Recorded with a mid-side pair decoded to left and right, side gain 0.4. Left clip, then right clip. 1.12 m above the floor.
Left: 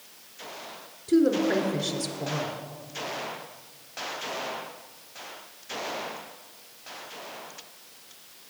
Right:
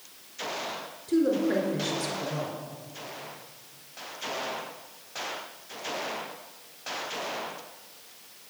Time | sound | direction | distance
1.1 | a woman speaking | 45° left | 3 m